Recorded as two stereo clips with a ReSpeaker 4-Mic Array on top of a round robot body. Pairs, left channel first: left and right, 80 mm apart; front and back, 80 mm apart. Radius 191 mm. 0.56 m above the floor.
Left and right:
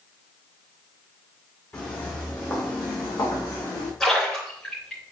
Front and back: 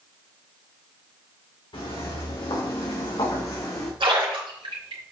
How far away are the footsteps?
About 3.5 m.